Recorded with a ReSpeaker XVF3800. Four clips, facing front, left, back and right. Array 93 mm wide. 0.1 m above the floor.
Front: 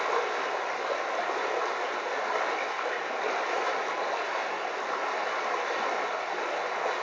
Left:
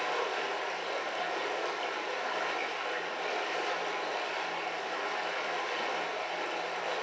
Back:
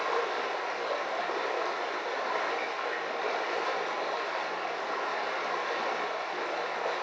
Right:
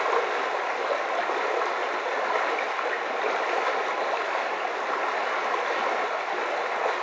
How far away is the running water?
About 1.6 m.